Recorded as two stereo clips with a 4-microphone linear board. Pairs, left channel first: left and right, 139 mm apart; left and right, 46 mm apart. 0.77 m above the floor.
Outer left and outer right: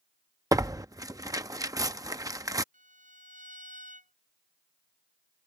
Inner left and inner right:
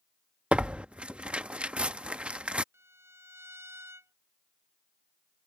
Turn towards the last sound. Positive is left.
turn(degrees=-65)  # may be behind; listen again after turning